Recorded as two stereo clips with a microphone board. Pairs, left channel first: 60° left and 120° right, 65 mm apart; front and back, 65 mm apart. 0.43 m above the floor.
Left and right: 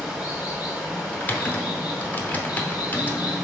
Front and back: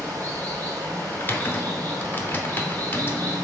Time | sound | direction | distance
0.0 | running water | 170° left | 1.9 m
1.1 | typing on a keyboard | 20° left | 0.6 m